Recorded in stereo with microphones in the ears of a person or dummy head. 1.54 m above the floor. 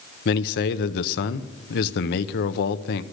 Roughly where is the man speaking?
Left.